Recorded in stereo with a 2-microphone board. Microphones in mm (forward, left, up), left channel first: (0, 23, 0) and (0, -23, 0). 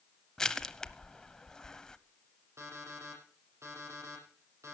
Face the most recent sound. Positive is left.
turn(degrees=-85)